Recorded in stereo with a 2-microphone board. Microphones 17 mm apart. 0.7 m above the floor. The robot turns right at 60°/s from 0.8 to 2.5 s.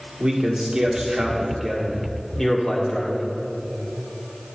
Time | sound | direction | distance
0.2 | a man speaking | 60° right | 1.8 m